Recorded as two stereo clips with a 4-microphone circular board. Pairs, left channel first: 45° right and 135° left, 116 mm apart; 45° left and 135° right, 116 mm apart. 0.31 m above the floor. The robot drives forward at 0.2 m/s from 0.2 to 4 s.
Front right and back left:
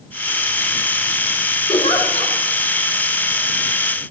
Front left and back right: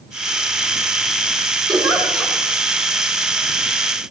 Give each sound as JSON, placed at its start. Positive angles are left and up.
{"t": 1.7, "sound": "a giggle", "azimuth_deg": -80, "distance_m": 3.0}